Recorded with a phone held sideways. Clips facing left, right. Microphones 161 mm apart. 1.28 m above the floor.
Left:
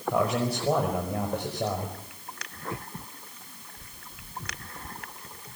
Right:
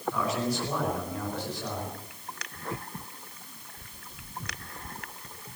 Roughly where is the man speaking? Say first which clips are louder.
Left 4 dB; left.